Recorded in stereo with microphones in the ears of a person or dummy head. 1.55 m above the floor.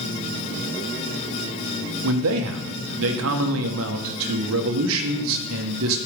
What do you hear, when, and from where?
2.0 s a man speaking: 80° right, 1.2 m